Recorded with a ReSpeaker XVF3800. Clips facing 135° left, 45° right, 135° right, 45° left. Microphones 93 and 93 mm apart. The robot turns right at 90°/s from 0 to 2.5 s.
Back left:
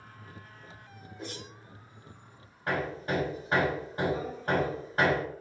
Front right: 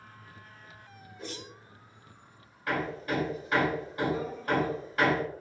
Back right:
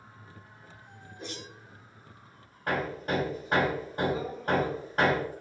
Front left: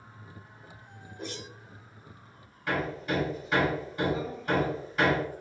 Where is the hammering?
165° right, 1.8 m.